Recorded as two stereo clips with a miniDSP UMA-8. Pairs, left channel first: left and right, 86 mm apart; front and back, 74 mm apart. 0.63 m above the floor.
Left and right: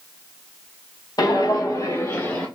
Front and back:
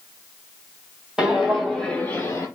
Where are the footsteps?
105° left, 0.9 m; by 2.5 s 25° left, 0.8 m.